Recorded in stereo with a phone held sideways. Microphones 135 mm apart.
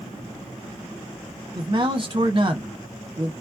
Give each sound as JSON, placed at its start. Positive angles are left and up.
{"t": 1.6, "sound": "a man speaking", "side_deg": -40, "distance_m": 1.0}